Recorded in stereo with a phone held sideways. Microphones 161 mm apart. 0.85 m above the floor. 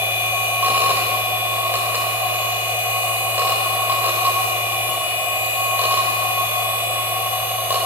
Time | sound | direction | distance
0.0 | a machine running | 10° right (ahead or behind) | 1.4 m